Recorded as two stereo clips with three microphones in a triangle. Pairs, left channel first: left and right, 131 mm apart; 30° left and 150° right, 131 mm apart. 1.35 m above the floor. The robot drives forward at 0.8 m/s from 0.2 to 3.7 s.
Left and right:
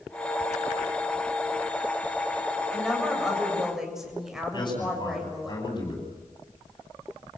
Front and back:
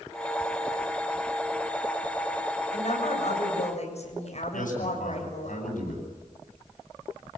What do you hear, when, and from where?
2.7 s a woman speaking: 5° right, 8.5 m
4.5 s a man speaking: 35° left, 9.5 m